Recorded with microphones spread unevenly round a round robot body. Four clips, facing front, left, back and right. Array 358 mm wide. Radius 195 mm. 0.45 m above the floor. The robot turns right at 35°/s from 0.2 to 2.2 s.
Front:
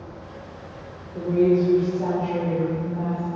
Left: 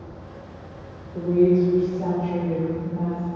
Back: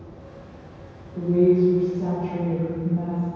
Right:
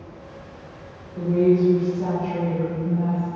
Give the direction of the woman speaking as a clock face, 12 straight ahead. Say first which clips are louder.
Even, back 1 dB; 9 o'clock.